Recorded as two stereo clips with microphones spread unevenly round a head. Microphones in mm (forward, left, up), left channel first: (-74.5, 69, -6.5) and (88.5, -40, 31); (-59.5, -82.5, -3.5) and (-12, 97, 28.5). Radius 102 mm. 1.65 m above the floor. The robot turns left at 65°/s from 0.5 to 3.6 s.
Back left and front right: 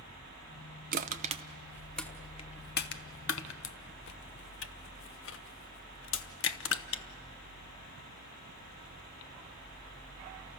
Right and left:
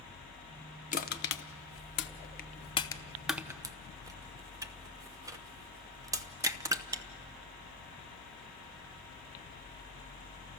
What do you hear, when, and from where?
0.9 s crushing: 50° right, 0.7 m; by 7.0 s 135° left, 0.7 m